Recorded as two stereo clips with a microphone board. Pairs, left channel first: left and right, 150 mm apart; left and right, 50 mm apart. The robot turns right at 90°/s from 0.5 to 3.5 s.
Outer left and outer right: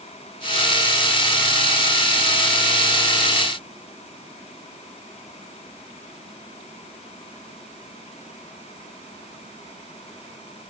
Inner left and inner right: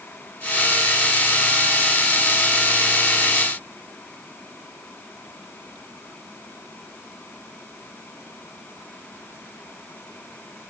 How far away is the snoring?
I don't hear snoring.